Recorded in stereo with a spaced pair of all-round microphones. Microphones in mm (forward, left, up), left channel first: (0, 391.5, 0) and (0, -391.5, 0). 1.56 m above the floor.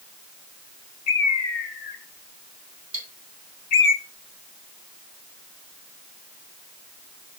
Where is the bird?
85° left, 1.0 m.